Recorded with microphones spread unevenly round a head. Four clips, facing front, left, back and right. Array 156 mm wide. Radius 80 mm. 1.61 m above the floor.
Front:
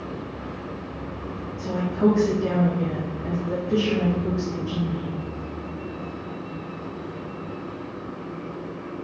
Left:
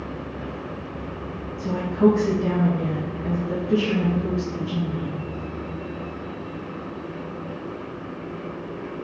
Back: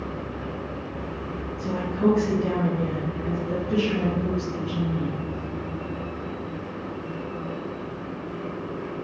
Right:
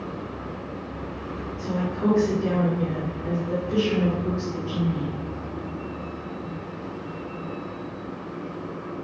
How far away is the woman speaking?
About 2 m.